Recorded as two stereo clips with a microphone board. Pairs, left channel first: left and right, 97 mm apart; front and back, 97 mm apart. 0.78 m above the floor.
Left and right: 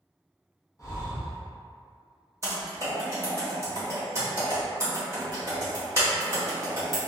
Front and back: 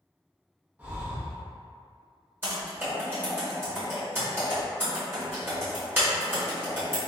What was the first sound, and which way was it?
Breathing, 115° left.